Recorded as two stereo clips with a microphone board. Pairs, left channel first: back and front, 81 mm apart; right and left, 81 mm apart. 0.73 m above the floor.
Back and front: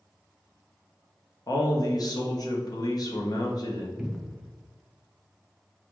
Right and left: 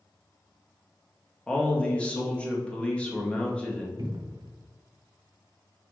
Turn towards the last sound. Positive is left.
turn(degrees=85)